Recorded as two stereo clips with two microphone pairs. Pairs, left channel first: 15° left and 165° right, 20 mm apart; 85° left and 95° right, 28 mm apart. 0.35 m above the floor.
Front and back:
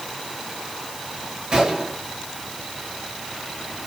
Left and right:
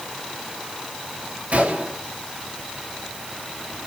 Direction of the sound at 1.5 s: 105° right.